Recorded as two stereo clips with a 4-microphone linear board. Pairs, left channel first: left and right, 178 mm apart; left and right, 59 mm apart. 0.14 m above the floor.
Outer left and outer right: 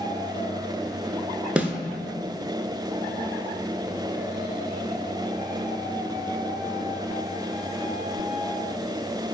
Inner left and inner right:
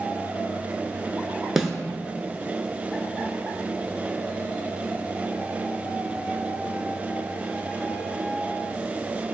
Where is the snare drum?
5° right (ahead or behind), 0.7 m.